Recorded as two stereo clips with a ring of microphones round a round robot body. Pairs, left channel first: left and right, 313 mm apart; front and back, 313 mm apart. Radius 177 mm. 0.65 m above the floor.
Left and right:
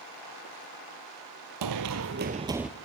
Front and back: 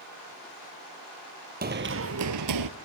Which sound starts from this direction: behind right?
Running footsteps, at 1.6 s.